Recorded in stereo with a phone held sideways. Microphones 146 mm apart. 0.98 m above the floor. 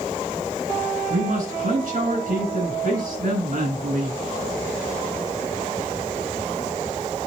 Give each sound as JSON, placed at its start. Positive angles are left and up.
{"t": 1.1, "sound": "a man speaking", "side_deg": -70, "distance_m": 4.5}